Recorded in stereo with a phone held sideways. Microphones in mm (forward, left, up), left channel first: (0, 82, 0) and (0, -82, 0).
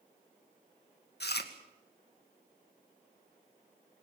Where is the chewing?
85° left, 2.0 m.